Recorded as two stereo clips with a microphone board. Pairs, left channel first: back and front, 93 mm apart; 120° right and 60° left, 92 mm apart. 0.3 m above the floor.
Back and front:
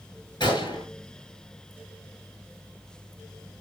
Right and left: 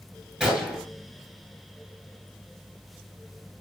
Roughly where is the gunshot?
Behind left.